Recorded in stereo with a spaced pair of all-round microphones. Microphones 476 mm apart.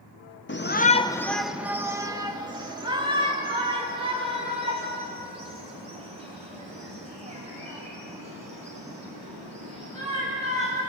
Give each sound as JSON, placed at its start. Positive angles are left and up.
{"t": 0.5, "sound": "a shout", "side_deg": 25, "distance_m": 0.6}